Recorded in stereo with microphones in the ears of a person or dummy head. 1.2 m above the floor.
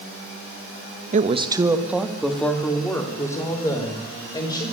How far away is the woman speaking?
About 1.1 m.